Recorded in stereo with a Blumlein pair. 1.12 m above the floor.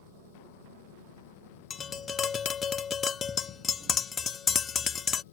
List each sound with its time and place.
0.0 s an engine running: 55° left
1.7 s tapping: 20° left